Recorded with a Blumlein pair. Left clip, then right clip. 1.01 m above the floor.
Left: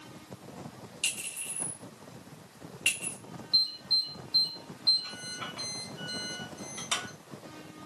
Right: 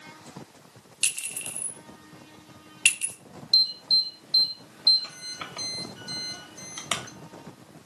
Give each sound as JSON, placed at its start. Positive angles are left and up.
{"t": 1.0, "sound": "a clink", "azimuth_deg": -45, "distance_m": 0.6}
{"t": 3.5, "sound": "an alarm", "azimuth_deg": -30, "distance_m": 0.7}